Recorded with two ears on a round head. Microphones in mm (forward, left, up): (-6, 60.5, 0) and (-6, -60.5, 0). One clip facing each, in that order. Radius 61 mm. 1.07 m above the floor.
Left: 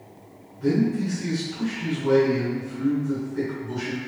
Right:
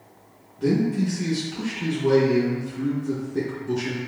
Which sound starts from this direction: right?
A man speaking, at 0.6 s.